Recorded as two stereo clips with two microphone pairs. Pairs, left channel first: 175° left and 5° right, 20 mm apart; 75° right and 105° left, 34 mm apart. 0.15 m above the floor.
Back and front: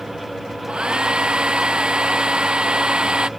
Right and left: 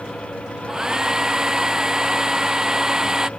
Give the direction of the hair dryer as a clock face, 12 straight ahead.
11 o'clock.